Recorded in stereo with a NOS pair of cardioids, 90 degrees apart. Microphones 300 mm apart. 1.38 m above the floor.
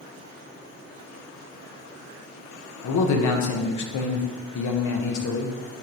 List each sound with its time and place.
2.8 s a man speaking: 65° left, 1.1 m